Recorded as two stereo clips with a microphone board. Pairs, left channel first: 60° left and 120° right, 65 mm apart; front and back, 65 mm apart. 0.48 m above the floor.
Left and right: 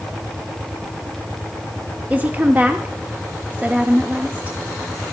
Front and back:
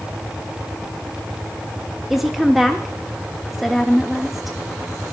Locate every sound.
2.1 s a woman speaking: 95° right, 0.9 m